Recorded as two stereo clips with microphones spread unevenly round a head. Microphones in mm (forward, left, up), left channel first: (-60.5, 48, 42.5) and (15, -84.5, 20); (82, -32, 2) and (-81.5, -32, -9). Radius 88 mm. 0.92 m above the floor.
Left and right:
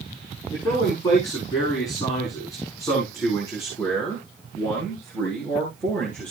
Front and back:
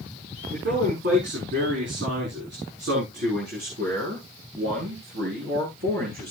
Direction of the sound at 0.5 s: Straight behind.